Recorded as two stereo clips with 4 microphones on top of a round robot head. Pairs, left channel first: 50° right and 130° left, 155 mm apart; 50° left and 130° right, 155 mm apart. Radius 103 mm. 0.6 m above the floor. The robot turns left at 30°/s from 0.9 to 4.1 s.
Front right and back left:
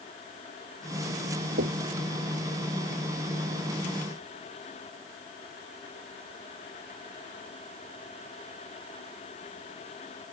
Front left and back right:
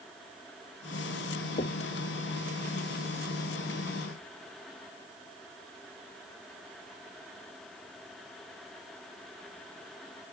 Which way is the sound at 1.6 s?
105° left.